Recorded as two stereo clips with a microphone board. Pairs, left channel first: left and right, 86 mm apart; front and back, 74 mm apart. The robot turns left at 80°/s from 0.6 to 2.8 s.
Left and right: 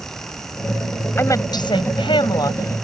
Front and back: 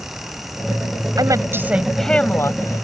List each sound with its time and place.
1.2 s a woman speaking: 155° left; by 2.9 s 25° left